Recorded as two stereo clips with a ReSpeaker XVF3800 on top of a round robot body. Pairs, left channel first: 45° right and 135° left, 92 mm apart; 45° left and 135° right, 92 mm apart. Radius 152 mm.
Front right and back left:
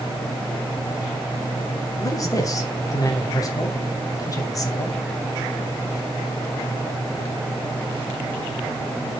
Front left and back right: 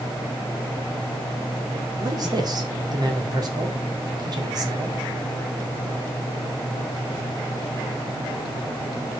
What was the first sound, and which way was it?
A man speaking, 95° right.